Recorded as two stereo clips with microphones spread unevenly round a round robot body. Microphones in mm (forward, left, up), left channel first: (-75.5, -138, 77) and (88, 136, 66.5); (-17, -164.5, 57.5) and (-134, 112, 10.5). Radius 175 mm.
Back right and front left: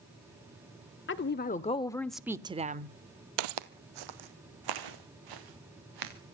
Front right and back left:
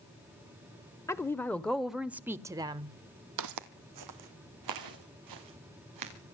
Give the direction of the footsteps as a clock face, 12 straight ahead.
10 o'clock.